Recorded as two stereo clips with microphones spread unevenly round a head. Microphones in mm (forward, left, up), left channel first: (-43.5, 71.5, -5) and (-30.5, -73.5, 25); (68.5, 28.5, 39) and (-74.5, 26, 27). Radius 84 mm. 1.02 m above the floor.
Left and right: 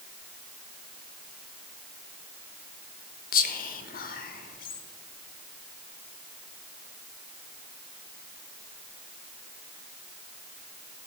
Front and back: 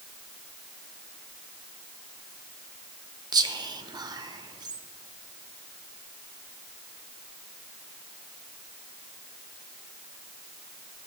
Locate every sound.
3.3 s whispering: 120° left, 0.6 m